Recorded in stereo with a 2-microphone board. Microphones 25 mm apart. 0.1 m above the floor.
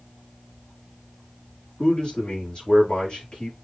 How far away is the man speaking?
About 5.5 m.